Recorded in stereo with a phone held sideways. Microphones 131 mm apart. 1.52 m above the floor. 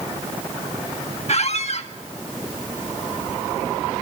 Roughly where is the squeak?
Left.